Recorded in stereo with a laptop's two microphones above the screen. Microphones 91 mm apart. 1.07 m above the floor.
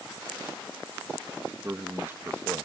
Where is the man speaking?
25° right (ahead or behind).